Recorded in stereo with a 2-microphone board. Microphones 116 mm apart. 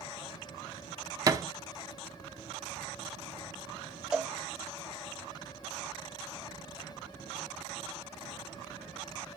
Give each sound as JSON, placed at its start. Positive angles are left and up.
{"t": 1.3, "sound": "a thud", "side_deg": -30, "distance_m": 0.9}
{"t": 4.1, "sound": "a cowbell", "side_deg": -5, "distance_m": 0.8}